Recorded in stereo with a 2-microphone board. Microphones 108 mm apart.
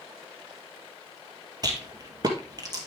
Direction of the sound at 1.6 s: 40° right (ahead or behind).